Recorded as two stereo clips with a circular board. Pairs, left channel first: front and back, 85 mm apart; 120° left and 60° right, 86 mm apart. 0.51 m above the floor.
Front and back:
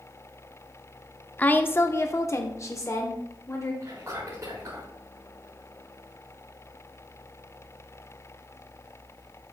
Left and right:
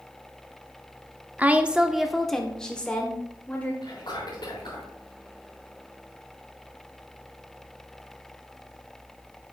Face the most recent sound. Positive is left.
turn(degrees=130)